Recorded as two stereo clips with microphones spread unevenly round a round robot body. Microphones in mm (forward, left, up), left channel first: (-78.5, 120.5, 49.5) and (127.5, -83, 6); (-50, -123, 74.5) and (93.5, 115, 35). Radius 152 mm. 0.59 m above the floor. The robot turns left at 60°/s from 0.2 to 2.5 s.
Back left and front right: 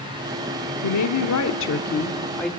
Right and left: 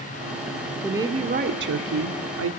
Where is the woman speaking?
140° left, 1.4 m; by 2.5 s 40° left, 1.4 m.